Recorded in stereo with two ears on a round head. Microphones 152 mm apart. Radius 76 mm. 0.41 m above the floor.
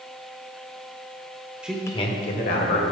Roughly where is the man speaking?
Centre.